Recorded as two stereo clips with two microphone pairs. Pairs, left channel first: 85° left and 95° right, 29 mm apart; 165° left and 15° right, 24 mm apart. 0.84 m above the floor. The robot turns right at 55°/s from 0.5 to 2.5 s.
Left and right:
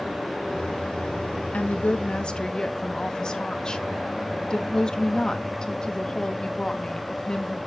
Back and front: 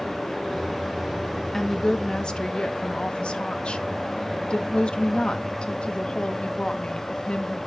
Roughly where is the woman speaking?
Left.